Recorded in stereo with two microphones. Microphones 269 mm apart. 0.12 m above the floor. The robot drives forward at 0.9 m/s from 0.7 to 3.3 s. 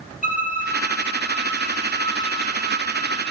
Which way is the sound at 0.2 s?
30° left (ahead or behind).